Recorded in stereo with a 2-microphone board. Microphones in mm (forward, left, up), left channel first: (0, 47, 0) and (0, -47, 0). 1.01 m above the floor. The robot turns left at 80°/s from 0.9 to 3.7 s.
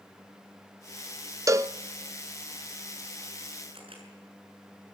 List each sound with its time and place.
1.5 s a cowbell: 30° right (ahead or behind), 0.6 m; by 1.8 s 25° right (ahead or behind), 0.6 m
3.7 s a camera shutter: 70° right (ahead or behind), 6.5 m